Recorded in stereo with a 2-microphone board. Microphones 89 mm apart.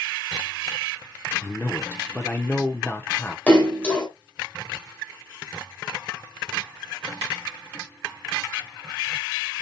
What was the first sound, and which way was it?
A man speaking, 25° left (ahead or behind).